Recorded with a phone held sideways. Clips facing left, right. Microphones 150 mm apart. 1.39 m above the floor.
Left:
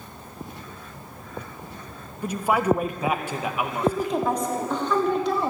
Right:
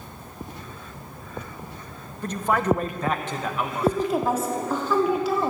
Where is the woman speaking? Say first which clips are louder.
Right 1 dB; 5° right (ahead or behind), 3.5 m.